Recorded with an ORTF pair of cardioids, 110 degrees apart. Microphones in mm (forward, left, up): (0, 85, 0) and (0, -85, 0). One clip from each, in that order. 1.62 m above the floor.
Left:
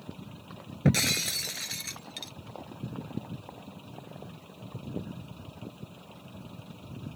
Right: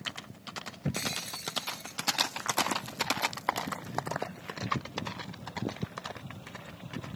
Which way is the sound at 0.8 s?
55° left.